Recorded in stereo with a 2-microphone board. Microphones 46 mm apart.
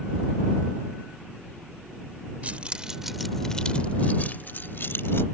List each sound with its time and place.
2.4 s keys jangling: 35° right (ahead or behind); by 5.2 s 60° left (ahead or behind)